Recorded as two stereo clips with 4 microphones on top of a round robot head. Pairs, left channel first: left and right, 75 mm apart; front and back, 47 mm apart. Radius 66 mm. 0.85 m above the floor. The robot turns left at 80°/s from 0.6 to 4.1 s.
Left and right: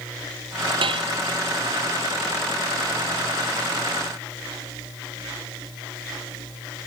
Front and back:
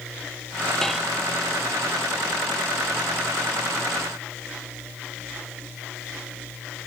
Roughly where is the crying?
I don't hear crying.